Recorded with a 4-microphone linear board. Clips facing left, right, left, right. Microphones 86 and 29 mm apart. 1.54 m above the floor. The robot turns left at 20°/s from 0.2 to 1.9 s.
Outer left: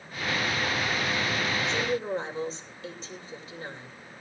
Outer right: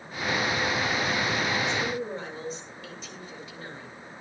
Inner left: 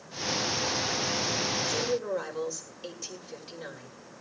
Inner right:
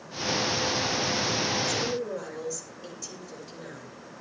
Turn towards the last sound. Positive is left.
turn(degrees=35)  # may be behind; listen again after turning